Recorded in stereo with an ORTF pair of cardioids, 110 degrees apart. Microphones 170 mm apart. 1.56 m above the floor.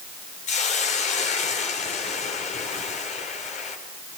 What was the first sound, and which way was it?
A hiss, 45° left.